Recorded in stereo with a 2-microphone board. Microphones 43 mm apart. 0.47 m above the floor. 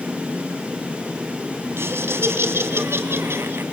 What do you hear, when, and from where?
1.8 s laughter: 75° right (ahead or behind), 3 m